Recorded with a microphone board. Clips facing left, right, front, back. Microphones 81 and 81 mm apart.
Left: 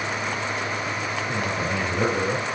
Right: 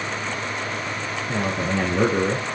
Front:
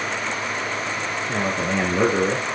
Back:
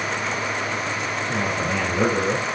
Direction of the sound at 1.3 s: 55° right.